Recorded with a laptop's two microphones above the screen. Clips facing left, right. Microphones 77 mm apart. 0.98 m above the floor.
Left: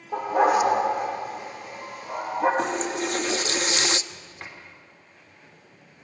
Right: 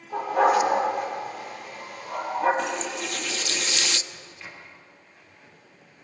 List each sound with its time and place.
0.1 s a dog barking: 20° left (ahead or behind), 7 m
2.6 s a running tap: 35° left (ahead or behind), 0.7 m
4.1 s a sliding door: 50° left (ahead or behind), 3.5 m